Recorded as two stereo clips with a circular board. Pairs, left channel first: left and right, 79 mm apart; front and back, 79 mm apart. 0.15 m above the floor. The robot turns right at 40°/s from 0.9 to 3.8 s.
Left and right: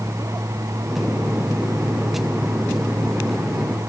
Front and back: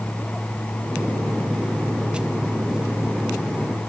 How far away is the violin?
No violin in this recording.